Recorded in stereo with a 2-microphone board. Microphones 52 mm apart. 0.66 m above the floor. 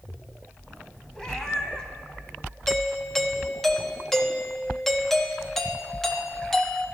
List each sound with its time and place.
1.1 s a cat meowing: 10° left (ahead or behind), 1.5 m
2.7 s a doorbell: 10° left (ahead or behind), 1.0 m